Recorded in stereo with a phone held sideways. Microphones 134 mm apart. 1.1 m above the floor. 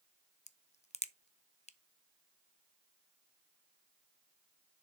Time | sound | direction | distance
0.5 | a crack | 60° left (ahead or behind) | 0.5 m